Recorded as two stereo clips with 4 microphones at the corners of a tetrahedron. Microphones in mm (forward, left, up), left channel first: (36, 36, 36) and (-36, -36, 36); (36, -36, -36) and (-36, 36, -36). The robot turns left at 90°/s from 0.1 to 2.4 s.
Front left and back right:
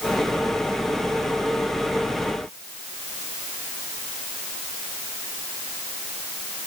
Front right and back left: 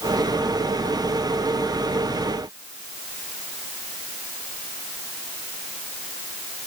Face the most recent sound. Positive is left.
No sound to turn to.